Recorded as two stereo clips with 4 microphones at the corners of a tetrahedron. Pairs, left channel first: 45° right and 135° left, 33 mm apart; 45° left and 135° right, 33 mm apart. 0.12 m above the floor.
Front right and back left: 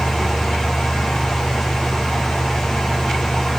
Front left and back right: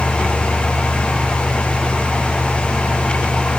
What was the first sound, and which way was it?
Only background noise.